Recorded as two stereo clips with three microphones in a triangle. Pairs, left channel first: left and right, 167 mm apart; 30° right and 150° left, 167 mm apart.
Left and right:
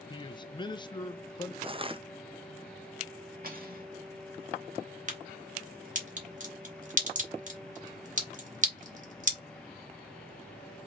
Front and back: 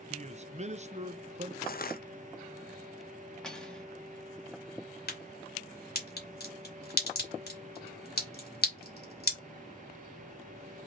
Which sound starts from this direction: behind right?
Cutlery clinking, at 3.4 s.